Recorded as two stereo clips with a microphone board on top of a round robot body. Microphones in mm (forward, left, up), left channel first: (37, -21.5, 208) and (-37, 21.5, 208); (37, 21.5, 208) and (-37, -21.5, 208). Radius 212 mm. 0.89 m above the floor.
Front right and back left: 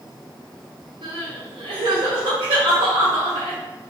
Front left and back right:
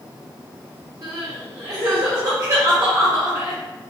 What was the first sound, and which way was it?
Crying, 160° left.